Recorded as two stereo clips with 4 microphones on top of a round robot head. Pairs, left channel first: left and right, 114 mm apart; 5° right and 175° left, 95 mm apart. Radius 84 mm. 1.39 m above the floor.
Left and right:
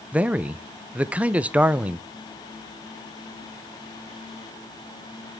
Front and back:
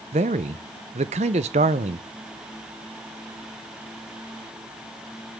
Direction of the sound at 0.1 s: 170° right.